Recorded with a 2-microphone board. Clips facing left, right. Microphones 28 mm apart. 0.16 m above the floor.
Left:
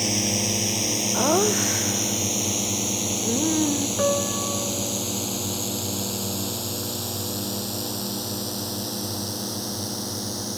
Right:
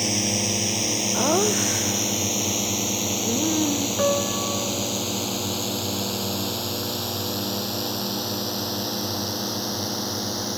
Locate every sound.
0.0 s a drone: centre (ahead or behind); by 10.6 s 25° right (ahead or behind)
1.1 s laughter: 5° left (ahead or behind)
4.0 s a piano: 5° right (ahead or behind)